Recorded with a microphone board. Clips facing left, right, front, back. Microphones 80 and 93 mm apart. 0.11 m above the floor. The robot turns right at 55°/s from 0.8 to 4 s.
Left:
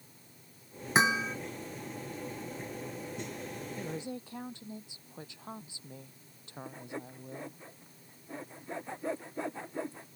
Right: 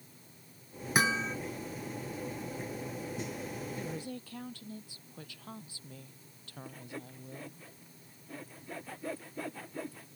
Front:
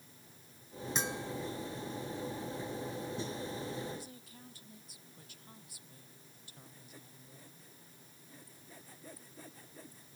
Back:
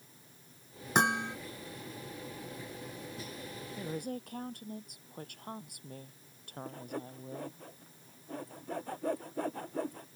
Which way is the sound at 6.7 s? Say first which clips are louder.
Left 3 dB, back 18 dB; 155° left.